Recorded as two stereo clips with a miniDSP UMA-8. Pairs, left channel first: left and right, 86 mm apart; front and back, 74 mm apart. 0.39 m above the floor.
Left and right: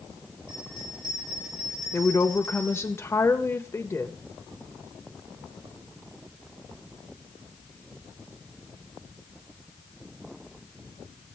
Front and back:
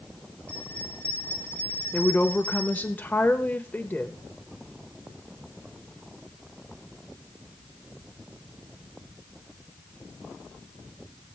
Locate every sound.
0.5 s a bell: 70° right, 3.5 m
1.9 s a woman speaking: 50° left, 0.9 m